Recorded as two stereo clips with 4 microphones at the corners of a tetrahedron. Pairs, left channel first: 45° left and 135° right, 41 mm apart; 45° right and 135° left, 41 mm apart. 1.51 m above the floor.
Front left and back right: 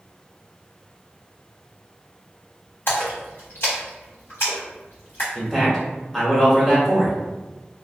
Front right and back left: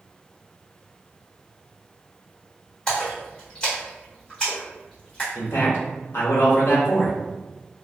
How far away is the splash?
About 1.5 m.